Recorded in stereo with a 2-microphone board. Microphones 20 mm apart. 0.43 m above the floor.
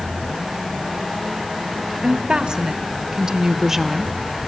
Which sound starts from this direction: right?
A woman speaking, at 2.0 s.